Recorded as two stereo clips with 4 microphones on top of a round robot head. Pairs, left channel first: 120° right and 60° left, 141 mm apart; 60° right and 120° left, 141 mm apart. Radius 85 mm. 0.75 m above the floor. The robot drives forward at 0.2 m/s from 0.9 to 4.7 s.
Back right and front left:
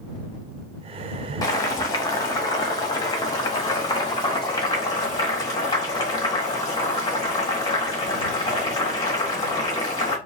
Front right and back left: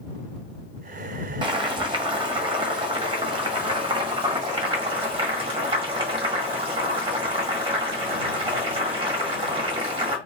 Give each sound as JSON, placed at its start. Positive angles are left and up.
{"t": 1.4, "sound": "boiling", "azimuth_deg": 175, "distance_m": 1.2}